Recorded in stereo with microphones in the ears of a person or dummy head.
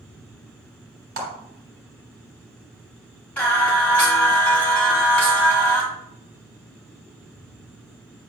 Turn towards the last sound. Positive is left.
turn(degrees=10)  # may be behind; listen again after turning